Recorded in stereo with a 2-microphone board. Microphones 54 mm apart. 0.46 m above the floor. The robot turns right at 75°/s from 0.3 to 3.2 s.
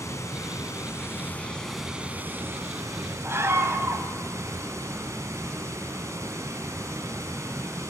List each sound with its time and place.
0.0 s running water: 70° left, 4 m; by 7.9 s 70° right, 4 m
3.2 s a scream: 50° right (ahead or behind), 3 m